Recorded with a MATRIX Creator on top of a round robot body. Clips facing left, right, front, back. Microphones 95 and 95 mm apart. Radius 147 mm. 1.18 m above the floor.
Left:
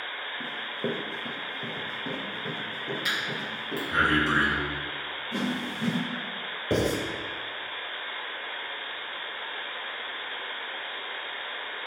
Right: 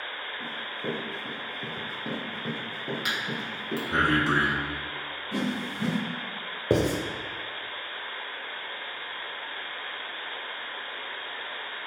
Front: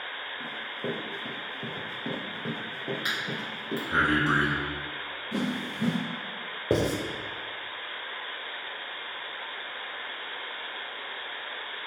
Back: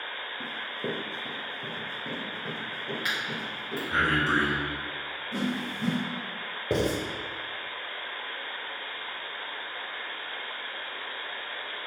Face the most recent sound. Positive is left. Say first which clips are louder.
# right 2 dB, front 1 dB
turn(degrees=-60)